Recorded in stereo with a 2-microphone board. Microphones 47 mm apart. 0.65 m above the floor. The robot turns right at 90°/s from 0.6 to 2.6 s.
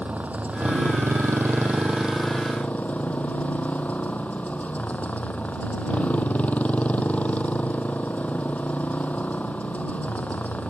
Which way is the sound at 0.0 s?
145° right.